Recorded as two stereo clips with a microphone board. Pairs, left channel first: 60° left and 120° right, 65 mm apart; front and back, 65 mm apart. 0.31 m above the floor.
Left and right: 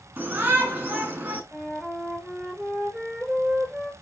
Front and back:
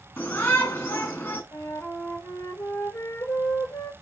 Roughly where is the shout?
Ahead right.